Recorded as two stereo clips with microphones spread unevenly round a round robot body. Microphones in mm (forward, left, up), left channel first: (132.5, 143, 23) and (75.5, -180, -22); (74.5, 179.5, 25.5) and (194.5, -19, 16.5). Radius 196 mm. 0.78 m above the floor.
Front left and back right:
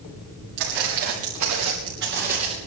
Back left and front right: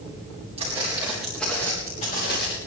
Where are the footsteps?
135° right, 4 m; by 2.6 s straight behind, 3.5 m.